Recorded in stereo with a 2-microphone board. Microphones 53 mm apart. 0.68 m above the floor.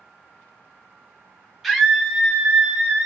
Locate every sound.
1.6 s a scream: centre (ahead or behind), 1.0 m; by 3.1 s 30° right (ahead or behind), 1.3 m